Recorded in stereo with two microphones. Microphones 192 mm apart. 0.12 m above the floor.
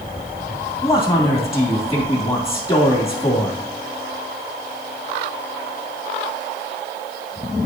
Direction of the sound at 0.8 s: 30° left (ahead or behind).